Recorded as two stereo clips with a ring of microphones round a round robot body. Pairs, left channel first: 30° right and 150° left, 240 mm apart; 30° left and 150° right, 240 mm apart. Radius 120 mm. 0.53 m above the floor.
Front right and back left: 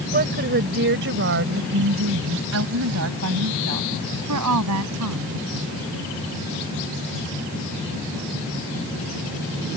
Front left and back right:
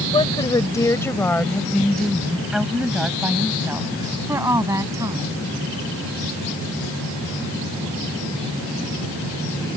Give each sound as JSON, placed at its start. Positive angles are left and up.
{"t": 0.1, "sound": "a woman speaking", "azimuth_deg": 100}